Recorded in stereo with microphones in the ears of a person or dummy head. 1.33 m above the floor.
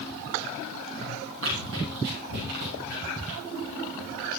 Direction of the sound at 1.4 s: 70° right (ahead or behind).